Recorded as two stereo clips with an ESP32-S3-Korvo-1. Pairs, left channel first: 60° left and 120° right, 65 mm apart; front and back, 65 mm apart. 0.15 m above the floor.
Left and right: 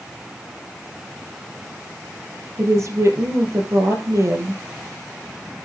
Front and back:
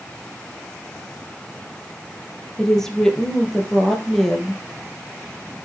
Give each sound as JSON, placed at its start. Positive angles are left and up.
{"t": 2.6, "sound": "a woman speaking", "azimuth_deg": -85, "distance_m": 3.5}